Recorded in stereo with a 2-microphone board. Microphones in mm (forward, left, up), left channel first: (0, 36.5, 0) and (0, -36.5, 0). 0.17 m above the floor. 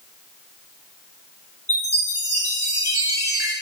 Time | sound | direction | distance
1.7 | a chime | 55° right (ahead or behind) | 3 m